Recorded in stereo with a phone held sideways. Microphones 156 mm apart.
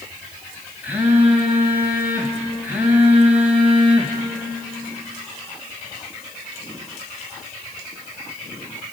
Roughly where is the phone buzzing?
Centre.